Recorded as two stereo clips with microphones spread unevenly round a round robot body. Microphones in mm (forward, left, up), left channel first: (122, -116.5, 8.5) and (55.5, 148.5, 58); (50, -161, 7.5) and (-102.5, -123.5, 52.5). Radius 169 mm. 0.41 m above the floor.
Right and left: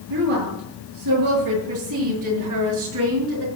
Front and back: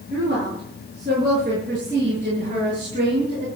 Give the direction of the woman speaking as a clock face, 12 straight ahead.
8 o'clock.